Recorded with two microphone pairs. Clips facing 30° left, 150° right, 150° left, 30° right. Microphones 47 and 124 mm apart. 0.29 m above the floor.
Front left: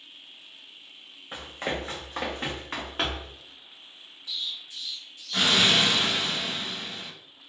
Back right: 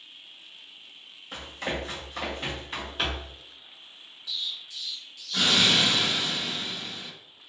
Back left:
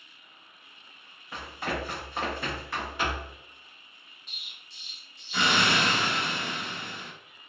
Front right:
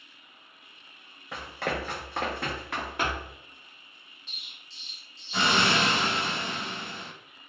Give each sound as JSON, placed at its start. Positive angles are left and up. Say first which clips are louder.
{"t": 1.3, "sound": "running footsteps", "louder": "front left 1 dB, front right 1 dB", "azimuth_deg": -35, "distance_m": 1.1}
{"t": 4.3, "sound": "an explosion", "louder": "even, even", "azimuth_deg": 10, "distance_m": 0.6}